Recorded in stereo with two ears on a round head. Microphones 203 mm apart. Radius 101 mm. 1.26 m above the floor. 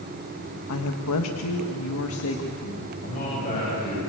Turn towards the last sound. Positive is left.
turn(degrees=35)  # may be behind; listen again after turning